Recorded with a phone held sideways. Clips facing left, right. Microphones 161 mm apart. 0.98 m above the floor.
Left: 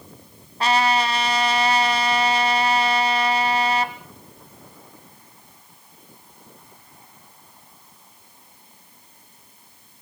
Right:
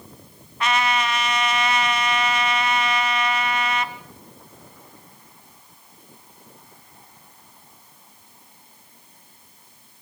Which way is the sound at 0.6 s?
35° left (ahead or behind).